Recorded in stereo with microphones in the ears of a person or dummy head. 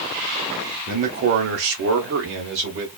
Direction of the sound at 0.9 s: 40° right (ahead or behind).